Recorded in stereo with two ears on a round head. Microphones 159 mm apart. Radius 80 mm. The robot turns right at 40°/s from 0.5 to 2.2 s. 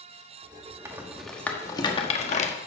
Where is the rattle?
15° right (ahead or behind), 1.2 m; by 2.5 s 40° left (ahead or behind), 1.2 m.